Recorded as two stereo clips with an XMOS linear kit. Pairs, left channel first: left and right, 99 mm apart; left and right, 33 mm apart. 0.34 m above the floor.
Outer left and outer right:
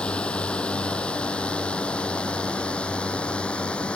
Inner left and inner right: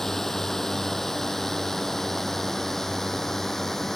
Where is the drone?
10° left (ahead or behind).